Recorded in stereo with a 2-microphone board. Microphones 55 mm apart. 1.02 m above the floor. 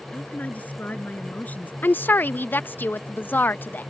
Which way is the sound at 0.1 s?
30° left (ahead or behind).